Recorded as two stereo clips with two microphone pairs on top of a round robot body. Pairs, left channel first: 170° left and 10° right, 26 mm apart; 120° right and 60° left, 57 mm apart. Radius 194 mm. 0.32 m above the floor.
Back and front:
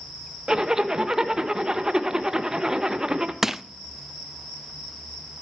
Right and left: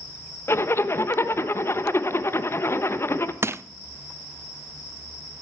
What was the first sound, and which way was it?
A zipper, 75° right.